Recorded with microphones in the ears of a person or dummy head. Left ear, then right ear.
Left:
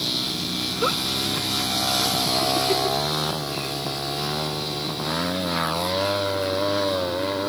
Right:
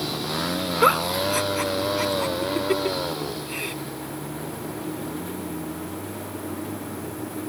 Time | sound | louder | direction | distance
0.8 | a giggle | right 5 dB | 35° right (ahead or behind) | ?